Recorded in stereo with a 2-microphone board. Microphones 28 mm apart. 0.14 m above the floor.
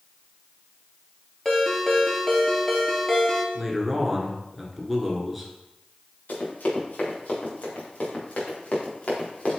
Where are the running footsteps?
80° left, 4 m; by 9.6 s 55° left (ahead or behind), 4 m.